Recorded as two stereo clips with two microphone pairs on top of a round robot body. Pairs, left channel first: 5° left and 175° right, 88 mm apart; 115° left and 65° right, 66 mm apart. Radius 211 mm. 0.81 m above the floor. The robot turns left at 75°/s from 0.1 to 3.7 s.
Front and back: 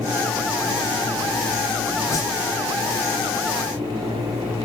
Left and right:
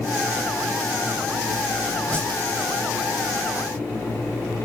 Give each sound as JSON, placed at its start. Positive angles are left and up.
{"t": 2.1, "sound": "a whoosh", "azimuth_deg": 60, "distance_m": 0.9}